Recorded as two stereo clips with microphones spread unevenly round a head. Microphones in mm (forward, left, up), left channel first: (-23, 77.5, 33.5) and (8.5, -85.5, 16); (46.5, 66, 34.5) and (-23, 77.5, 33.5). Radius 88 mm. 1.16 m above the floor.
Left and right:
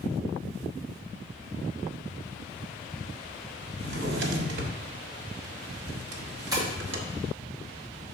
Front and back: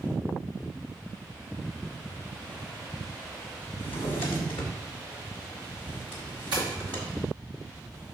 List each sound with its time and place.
3.8 s a drawer: 55° right, 1.0 m
6.5 s tapping: 145° right, 2.5 m